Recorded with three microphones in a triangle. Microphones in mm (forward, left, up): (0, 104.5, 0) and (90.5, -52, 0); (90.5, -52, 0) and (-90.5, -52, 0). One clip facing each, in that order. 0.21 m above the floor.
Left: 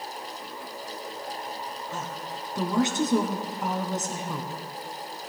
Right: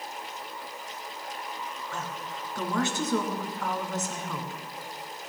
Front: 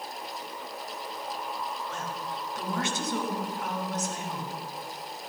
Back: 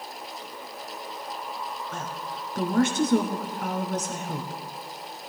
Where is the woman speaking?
175° right, 2 m.